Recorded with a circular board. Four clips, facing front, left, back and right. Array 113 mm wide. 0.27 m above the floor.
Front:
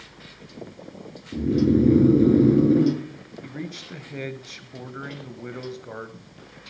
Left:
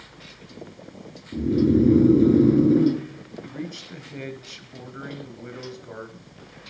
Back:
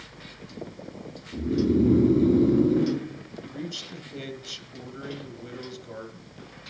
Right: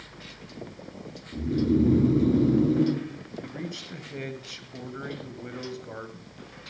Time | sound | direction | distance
1.3 | snoring | 30° left | 2.5 m
3.4 | a man speaking | straight ahead | 1.1 m